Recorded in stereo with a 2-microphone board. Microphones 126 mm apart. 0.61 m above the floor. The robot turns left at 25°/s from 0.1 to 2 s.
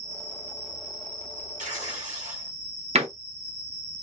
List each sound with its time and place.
0.0 s an insect: 155° right, 1.4 m; by 4.0 s 155° left, 1.4 m
1.6 s tearing paper: 80° right, 1.1 m; by 2.5 s 75° right (ahead or behind), 1.1 m
3.0 s a door slam: 60° right (ahead or behind), 0.7 m